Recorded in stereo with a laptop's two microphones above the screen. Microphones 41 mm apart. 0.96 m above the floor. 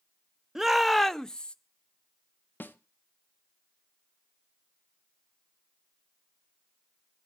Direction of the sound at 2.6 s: 50° left (ahead or behind).